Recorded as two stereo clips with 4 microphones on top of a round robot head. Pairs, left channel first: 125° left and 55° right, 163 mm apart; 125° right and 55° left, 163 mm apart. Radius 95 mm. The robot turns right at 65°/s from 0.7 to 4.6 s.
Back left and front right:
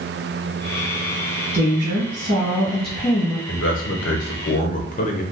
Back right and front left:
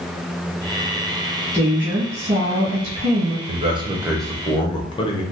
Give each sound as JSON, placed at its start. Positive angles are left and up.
{"t": 1.5, "sound": "a woman speaking", "azimuth_deg": -55, "distance_m": 1.1}
{"t": 3.5, "sound": "a man speaking", "azimuth_deg": 95, "distance_m": 0.8}